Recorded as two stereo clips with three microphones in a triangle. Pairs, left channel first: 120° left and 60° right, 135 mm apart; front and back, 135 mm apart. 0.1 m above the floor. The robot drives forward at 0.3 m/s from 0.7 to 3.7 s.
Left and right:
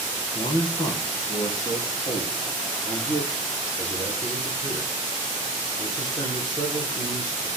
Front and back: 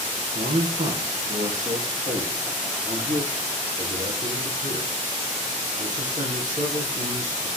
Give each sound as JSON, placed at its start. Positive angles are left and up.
{"t": 0.3, "sound": "a man speaking", "azimuth_deg": 180, "distance_m": 3.0}